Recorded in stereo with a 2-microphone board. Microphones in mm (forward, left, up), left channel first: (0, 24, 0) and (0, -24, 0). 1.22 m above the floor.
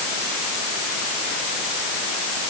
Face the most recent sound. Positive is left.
No sound to turn to.